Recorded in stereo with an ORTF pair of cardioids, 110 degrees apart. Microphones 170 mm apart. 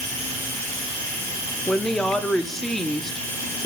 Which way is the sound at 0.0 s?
20° left.